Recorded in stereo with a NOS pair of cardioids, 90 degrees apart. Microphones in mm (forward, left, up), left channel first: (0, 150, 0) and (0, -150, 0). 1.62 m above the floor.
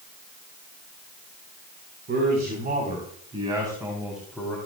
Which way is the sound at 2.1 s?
35° right.